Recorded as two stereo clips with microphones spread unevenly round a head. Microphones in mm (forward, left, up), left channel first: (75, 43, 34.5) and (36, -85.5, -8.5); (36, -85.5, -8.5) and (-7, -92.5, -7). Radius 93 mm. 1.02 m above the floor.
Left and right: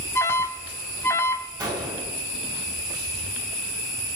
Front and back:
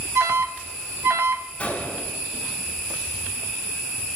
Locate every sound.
0.1 s an alarm: 155° left, 0.6 m
1.6 s a gunshot: 45° right, 6 m